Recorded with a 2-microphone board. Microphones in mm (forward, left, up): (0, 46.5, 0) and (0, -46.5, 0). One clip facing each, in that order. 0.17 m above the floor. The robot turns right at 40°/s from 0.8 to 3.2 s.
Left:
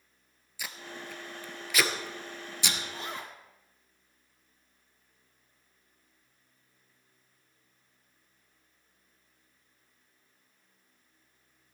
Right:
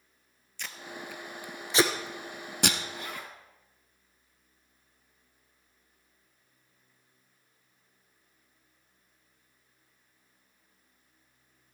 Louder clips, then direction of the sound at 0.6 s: Right 1 dB; 10° left (ahead or behind).